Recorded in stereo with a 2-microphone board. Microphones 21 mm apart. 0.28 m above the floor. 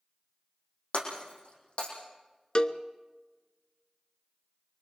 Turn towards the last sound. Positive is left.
turn(degrees=40)  # may be behind; listen again after turning